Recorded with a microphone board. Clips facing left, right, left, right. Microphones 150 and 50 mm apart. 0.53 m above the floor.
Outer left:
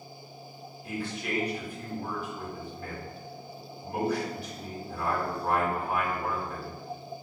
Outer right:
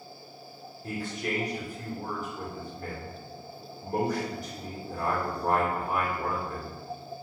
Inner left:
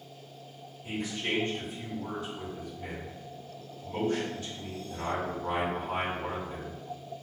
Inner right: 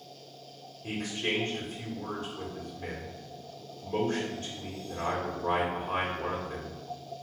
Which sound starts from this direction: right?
A man speaking, at 0.8 s.